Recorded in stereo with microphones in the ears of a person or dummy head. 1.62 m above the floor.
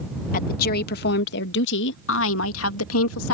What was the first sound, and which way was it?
A woman speaking, 50° left (ahead or behind).